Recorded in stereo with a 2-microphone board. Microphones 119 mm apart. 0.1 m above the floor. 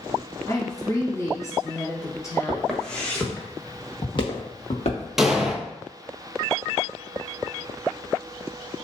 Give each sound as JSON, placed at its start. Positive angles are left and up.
{"t": 0.5, "sound": "a woman speaking", "side_deg": 30, "distance_m": 1.4}
{"t": 2.5, "sound": "footsteps", "side_deg": 0, "distance_m": 1.4}
{"t": 5.2, "sound": "an explosion", "side_deg": -5, "distance_m": 0.6}